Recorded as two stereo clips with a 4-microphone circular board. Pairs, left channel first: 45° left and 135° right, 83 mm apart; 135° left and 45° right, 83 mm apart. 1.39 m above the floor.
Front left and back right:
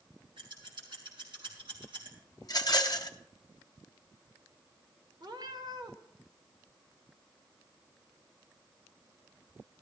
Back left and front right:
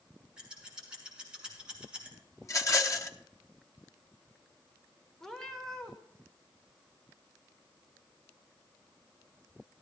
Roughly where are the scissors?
Behind right.